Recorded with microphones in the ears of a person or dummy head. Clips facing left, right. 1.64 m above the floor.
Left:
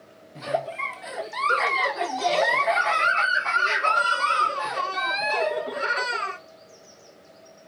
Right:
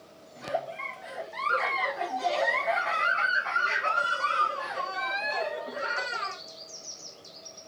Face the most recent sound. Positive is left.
turn(degrees=50)  # may be behind; listen again after turning